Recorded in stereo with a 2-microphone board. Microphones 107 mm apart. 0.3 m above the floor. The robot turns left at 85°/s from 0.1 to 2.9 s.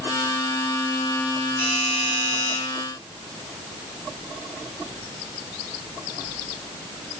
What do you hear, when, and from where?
1.6 s a doorbell: 30° left, 3.5 m; by 2.6 s 55° right, 3.5 m